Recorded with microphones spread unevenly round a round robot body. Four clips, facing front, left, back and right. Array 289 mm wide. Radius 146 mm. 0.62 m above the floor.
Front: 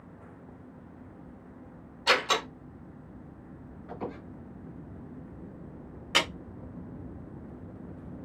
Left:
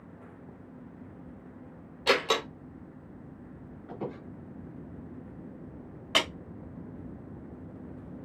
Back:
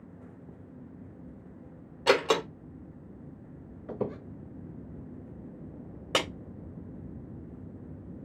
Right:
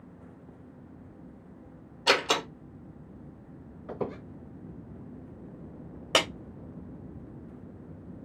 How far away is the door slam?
About 1.6 m.